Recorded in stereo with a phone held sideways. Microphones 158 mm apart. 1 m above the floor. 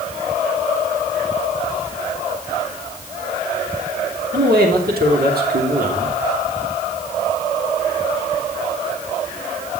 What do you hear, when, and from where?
4.3 s a man speaking: 75° right (ahead or behind), 3 m